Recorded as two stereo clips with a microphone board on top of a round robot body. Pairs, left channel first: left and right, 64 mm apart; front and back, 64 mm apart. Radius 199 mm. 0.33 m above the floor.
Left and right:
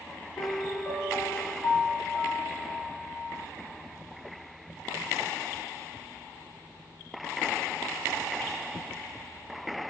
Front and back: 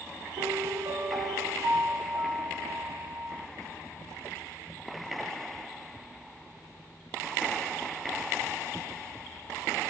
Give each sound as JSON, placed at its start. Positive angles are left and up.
{"t": 0.4, "sound": "a piano", "azimuth_deg": 155, "distance_m": 0.6}